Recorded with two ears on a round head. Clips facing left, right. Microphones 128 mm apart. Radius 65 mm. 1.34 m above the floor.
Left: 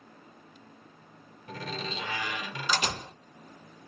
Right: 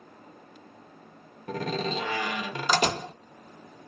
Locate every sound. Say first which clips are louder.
1.5 s a door slam: right 8 dB; 40° right (ahead or behind), 0.6 m